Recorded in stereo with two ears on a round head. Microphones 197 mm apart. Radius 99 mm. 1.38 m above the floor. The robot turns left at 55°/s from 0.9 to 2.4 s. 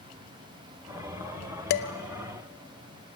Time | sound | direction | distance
1.7 | dishes clattering | 50° left (ahead or behind) | 0.8 m